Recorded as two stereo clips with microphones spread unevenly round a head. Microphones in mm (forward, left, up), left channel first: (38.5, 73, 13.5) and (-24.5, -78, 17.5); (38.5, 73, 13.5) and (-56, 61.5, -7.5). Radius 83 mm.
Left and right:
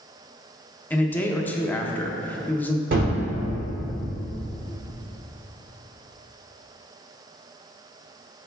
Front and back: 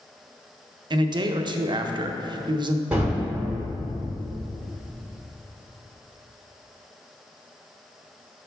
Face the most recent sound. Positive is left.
turn(degrees=-85)